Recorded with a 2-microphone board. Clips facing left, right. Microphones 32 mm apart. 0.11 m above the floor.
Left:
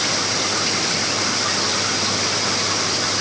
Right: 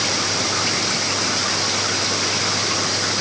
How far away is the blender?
I don't hear a blender.